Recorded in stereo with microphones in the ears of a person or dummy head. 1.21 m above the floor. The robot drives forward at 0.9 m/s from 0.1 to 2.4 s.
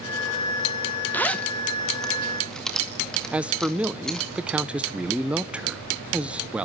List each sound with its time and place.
1.1 s a zipper: 10° left (ahead or behind), 0.8 m; by 4.3 s 5° left (ahead or behind), 1.9 m
3.3 s a man speaking: 5° right (ahead or behind), 0.7 m